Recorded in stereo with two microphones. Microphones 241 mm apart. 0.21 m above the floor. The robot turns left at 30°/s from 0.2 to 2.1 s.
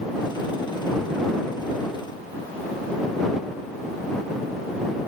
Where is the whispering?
I don't hear whispering.